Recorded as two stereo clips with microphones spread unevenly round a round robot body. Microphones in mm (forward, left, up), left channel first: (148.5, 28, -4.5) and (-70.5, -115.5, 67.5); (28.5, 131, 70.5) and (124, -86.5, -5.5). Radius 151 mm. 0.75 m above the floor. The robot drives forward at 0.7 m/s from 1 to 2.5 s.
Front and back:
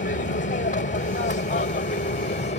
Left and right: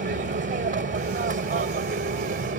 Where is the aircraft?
20° right; by 2.6 s 25° right.